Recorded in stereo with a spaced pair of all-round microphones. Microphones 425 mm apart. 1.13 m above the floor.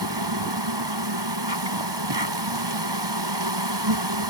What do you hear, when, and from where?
0.0 s an insect: 75° right (ahead or behind)